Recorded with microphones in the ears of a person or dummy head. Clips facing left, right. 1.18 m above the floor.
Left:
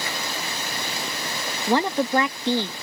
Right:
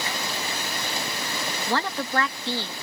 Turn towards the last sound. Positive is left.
turn(degrees=20)  # may be behind; listen again after turning